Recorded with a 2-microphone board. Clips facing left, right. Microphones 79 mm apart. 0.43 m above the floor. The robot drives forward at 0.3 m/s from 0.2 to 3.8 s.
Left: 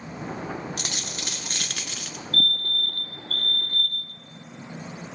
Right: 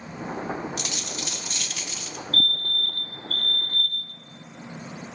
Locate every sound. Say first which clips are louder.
0.8 s a dropped coin: right 1 dB; 55° left (ahead or behind), 1.2 m; by 2.2 s 75° left (ahead or behind), 1.1 m
2.3 s a fire alarm: left 1 dB; 30° left (ahead or behind), 2.5 m